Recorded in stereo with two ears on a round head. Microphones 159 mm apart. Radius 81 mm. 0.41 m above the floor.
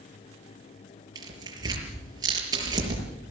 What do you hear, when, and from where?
1.1 s tearing paper: 25° right (ahead or behind), 6 m